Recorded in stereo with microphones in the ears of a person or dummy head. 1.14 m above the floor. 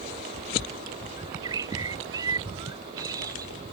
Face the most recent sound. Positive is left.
turn(degrees=-20)  # may be behind; listen again after turning